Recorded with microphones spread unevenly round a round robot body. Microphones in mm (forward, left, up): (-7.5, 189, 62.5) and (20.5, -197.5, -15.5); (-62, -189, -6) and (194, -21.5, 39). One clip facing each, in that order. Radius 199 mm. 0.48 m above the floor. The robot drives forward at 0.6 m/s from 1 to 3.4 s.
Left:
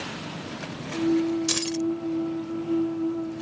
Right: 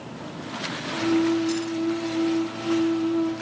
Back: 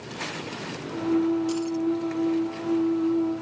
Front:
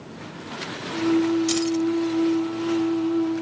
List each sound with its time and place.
1.5 s keys jangling: 65° left; by 1.9 s 75° left